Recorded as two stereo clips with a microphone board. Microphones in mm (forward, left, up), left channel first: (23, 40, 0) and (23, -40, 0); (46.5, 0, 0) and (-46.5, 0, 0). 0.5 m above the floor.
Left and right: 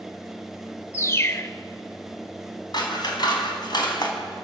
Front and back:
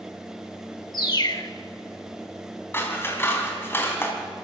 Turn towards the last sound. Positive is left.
turn(degrees=65)